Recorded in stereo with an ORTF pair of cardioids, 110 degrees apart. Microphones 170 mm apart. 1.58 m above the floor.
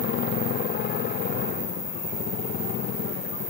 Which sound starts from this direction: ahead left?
A motorcycle, at 0.0 s.